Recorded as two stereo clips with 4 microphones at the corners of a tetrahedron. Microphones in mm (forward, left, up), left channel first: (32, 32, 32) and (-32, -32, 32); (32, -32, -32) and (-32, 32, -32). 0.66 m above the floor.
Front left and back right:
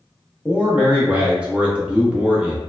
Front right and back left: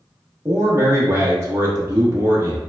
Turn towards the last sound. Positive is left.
turn(degrees=160)